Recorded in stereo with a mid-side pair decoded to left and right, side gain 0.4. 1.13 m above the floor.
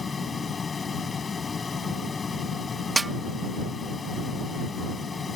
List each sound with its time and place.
0.0 s a fan: 40° left
3.0 s a snare drum: 25° right